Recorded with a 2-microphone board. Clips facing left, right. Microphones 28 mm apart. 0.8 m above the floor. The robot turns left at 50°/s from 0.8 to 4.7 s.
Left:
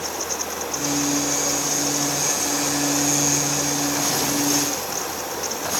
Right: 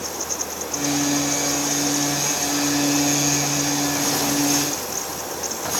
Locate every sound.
Only background noise.